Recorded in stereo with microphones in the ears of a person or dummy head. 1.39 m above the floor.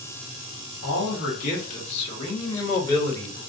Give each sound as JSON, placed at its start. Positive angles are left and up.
{"t": 0.8, "sound": "a man speaking", "side_deg": 65, "distance_m": 1.5}